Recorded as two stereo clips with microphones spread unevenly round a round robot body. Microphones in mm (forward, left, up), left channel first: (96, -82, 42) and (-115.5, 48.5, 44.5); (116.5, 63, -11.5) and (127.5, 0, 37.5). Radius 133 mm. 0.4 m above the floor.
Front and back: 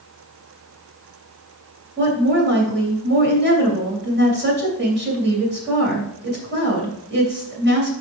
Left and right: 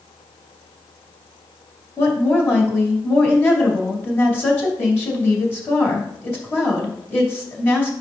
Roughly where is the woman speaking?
Left.